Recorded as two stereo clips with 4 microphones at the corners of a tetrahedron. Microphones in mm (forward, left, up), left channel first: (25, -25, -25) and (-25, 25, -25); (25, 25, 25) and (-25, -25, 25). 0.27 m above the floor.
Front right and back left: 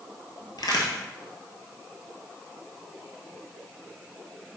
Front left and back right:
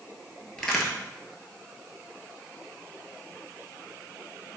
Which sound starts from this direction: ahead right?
A crack, at 0.6 s.